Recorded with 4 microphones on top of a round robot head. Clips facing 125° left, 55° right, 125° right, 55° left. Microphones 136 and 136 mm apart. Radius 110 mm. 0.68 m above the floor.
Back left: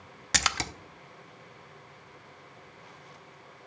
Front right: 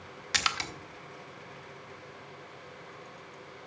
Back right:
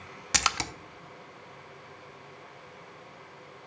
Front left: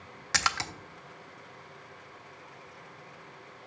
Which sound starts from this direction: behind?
A splash, at 0.3 s.